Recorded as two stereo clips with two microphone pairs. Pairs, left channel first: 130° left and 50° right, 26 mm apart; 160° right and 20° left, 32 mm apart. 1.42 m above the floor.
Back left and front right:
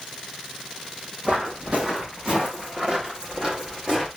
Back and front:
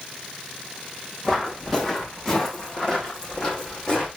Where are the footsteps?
75° right, 3.5 m; by 4.1 s 100° right, 4.5 m.